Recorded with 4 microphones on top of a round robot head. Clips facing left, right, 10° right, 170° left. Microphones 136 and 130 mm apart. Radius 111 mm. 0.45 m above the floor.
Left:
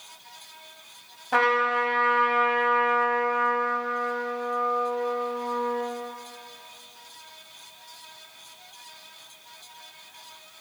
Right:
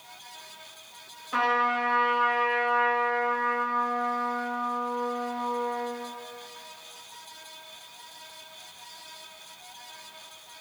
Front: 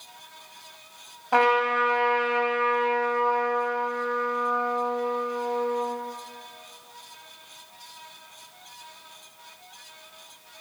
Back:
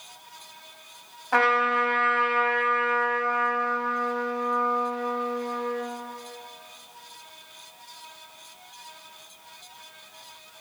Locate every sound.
1.3 s a trumpet: 60° left, 2.5 m